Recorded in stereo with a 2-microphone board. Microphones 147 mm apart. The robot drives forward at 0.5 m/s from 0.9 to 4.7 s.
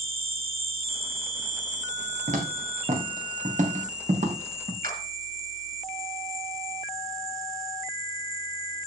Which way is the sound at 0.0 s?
85° right.